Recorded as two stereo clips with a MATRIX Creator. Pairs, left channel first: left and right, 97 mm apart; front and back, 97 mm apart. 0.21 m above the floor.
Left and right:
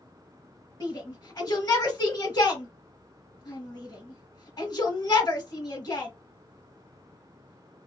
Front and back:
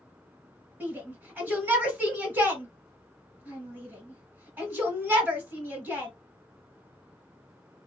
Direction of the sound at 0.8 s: 115° left.